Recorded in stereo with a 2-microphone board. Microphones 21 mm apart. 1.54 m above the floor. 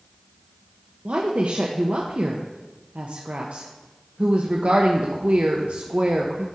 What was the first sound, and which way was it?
A woman speaking, 65° right (ahead or behind).